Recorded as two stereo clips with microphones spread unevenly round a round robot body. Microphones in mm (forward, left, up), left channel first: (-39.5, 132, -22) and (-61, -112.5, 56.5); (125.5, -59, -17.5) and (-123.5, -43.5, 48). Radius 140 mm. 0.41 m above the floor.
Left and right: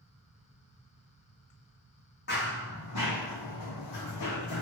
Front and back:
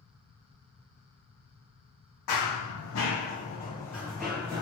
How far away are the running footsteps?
About 0.9 m.